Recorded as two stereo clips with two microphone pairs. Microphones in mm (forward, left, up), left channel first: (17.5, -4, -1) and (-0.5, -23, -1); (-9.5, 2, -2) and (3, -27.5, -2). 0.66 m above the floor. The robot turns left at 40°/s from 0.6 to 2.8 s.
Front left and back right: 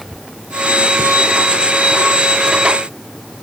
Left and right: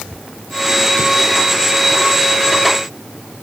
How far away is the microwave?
I don't hear a microwave.